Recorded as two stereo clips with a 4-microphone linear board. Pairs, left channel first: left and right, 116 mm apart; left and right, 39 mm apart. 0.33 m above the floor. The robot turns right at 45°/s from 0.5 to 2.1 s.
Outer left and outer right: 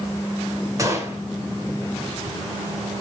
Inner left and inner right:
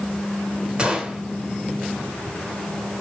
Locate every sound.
0.8 s a gunshot: 30° right (ahead or behind), 0.9 m; by 1.2 s 20° right (ahead or behind), 0.9 m